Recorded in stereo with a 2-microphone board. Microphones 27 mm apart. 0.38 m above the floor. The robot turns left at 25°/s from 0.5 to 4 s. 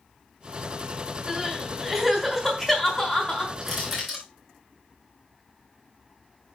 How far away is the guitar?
No guitar in this recording.